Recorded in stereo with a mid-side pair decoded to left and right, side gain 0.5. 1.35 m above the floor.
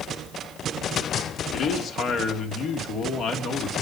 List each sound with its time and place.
1.5 s a man speaking: 65° left, 2.5 m